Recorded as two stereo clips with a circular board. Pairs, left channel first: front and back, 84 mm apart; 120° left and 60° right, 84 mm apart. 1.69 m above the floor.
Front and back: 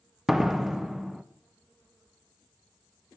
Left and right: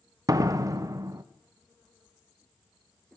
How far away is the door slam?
About 0.8 m.